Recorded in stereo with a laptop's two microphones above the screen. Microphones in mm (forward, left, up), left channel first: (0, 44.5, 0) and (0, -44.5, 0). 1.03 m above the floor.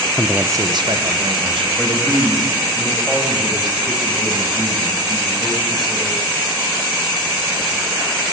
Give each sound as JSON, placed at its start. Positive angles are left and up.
{"t": 0.1, "sound": "a man speaking", "side_deg": 15, "distance_m": 0.5}
{"t": 1.8, "sound": "a man speaking", "side_deg": 0, "distance_m": 5.0}